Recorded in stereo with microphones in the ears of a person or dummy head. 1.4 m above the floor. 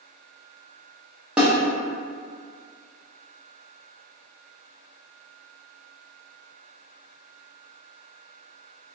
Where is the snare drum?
Centre (ahead or behind), 0.6 m.